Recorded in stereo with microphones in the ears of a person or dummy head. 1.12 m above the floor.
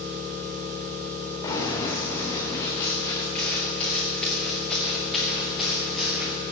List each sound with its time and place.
0.0 s an engine running: 25° right (ahead or behind), 9 m
1.4 s running footsteps: 20° left (ahead or behind), 7.5 m; by 6.3 s 5° right (ahead or behind), 7 m